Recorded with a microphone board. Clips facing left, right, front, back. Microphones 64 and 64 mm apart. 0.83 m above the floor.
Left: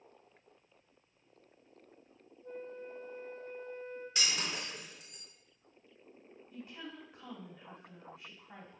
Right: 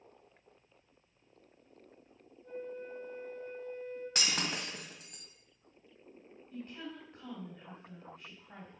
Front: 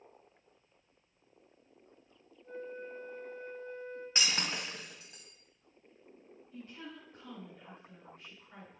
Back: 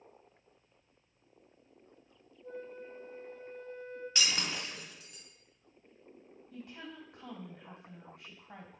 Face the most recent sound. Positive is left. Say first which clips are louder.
# right 3 dB, back 1 dB
turn(degrees=170)